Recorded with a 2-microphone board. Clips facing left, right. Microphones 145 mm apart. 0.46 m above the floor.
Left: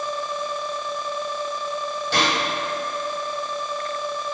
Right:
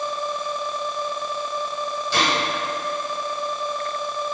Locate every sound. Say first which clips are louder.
2.1 s a gunshot: even; 60° left (ahead or behind), 2 m